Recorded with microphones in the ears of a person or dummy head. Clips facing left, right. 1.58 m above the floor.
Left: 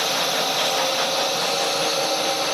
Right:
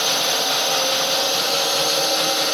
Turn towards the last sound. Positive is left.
turn(degrees=-10)  # may be behind; listen again after turning